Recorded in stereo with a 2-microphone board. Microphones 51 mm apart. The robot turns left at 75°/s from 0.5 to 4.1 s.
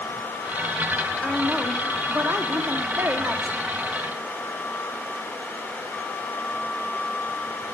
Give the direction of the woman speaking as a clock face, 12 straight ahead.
11 o'clock.